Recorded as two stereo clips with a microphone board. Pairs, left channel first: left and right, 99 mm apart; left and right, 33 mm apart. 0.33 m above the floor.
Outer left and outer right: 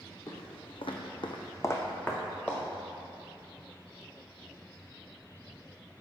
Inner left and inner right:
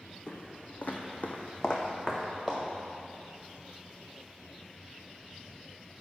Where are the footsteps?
40° left (ahead or behind), 1.3 m; by 2.6 s 5° left (ahead or behind), 1.9 m.